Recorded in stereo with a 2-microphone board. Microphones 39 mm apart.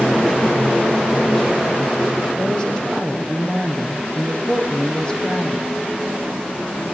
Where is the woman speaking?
15° left (ahead or behind), 5 m.